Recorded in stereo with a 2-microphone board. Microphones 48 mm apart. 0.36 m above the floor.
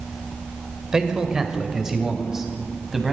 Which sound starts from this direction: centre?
A man speaking, at 0.9 s.